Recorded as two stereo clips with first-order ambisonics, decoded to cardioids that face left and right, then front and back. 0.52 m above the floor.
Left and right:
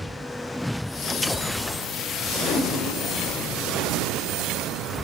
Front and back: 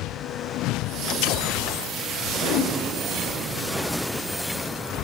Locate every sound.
2.4 s a whoosh: 30° left, 0.7 m